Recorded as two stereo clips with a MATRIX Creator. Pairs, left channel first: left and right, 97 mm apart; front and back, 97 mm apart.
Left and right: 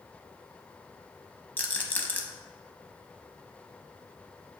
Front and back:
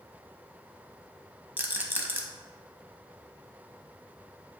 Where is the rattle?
140° left, 0.6 m.